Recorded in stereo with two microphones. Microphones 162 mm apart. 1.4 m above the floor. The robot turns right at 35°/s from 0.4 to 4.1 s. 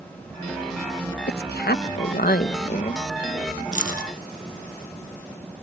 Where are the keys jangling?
50° left (ahead or behind); by 4.1 s 65° left (ahead or behind).